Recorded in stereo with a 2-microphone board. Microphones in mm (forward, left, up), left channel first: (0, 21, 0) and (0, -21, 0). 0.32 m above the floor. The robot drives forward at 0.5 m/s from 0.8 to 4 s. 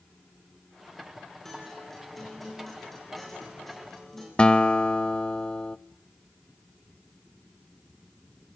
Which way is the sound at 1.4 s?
5° left (ahead or behind).